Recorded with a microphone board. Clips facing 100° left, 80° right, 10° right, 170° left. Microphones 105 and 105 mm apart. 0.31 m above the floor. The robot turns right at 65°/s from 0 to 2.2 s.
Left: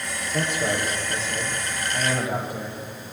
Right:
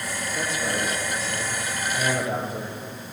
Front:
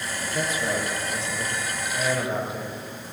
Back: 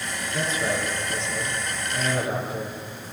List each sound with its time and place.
0.3 s a man speaking: 100° left, 7 m; by 3.1 s 140° right, 7 m